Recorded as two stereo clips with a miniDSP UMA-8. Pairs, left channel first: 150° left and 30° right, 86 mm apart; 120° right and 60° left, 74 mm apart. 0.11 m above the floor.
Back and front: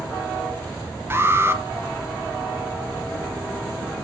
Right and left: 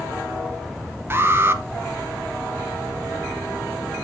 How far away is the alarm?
About 1.2 m.